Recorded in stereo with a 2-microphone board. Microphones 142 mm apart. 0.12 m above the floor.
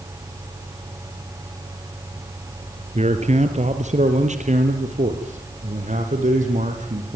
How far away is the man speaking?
About 2.5 m.